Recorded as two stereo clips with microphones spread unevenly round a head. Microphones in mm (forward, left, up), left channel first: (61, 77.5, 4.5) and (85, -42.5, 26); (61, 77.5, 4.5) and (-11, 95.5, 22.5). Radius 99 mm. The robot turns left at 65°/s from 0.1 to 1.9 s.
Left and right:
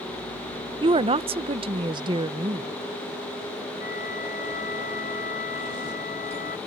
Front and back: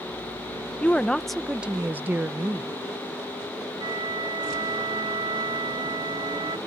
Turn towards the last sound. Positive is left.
turn(degrees=150)